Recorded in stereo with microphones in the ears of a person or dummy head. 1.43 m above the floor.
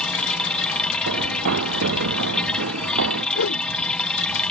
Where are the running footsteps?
75° right (ahead or behind); by 3.2 s 80° right.